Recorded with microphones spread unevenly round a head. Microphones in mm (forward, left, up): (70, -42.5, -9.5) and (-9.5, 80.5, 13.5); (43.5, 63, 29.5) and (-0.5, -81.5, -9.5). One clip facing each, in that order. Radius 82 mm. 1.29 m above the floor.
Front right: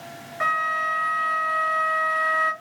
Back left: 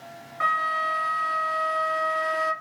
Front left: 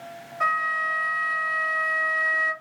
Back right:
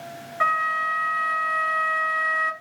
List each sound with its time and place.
0.4 s a flute: 120° right, 1.9 m